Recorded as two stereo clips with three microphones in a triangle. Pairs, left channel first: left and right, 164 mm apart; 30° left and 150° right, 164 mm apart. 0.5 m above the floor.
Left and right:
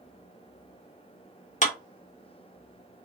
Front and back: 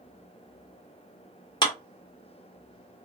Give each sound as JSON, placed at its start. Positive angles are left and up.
{"t": 1.6, "sound": "a clap", "azimuth_deg": 80, "distance_m": 0.8}